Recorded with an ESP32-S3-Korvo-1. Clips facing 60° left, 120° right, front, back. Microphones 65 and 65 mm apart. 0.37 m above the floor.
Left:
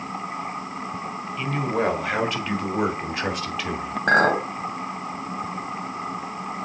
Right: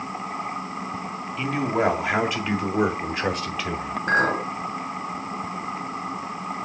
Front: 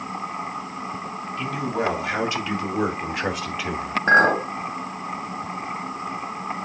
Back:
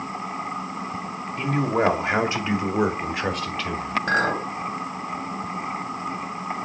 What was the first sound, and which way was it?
A man speaking, 160° left.